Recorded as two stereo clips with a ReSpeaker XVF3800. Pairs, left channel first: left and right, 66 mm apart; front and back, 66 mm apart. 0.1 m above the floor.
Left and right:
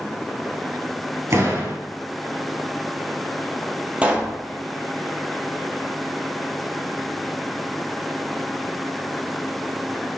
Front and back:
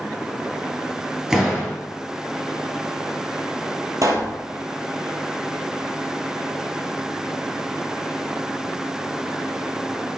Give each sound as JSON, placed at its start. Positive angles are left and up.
{"t": 1.3, "sound": "a door slam", "azimuth_deg": -100, "distance_m": 1.8}
{"t": 4.0, "sound": "a pop", "azimuth_deg": -160, "distance_m": 0.9}